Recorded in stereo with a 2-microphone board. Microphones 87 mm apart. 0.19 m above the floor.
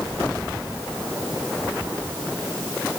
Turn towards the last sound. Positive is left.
No sound to turn to.